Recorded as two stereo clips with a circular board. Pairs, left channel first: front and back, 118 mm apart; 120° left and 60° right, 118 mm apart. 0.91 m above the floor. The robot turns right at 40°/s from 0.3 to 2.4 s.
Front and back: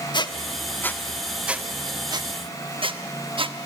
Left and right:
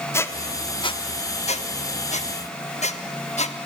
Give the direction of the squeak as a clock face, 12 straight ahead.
10 o'clock.